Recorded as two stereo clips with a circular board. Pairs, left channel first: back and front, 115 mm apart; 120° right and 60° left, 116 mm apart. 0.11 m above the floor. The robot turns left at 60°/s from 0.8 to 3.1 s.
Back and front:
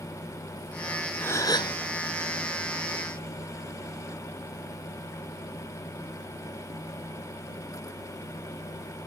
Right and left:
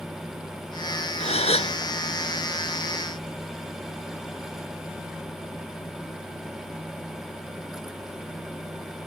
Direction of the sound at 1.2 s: 110° right.